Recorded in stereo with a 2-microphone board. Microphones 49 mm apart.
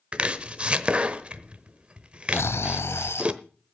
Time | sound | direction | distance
0.1 | chopping | 30° right (ahead or behind) | 0.9 m
2.3 | snoring | 80° left | 0.8 m